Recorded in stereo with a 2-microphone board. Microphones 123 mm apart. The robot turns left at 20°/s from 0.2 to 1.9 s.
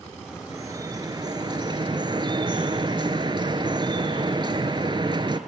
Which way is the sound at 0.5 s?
25° right (ahead or behind).